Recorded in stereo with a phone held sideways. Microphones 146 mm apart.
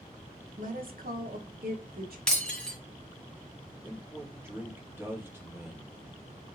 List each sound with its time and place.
0.6 s a woman speaking: 60° right (ahead or behind), 1.1 m; by 2.2 s 75° right (ahead or behind), 1.3 m
2.3 s breaking glass: 5° left (ahead or behind), 1.6 m
3.8 s a man speaking: 15° right (ahead or behind), 1.5 m